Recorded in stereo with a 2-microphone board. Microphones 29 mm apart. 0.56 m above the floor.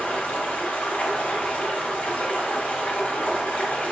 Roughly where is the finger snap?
No finger snap in this recording.